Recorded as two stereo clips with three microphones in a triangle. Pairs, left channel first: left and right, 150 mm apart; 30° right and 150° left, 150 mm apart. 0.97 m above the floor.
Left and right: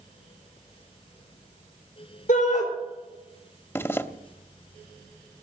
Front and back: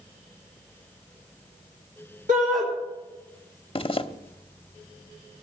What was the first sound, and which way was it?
A shout, 120° left.